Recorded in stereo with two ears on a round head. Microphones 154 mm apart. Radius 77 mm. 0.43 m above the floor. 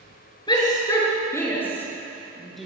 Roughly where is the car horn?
No car horn in this recording.